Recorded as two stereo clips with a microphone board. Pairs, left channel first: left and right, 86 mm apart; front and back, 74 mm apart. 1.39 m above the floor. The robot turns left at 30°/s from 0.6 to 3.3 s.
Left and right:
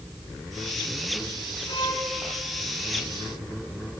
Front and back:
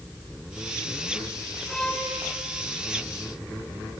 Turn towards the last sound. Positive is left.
turn(degrees=35)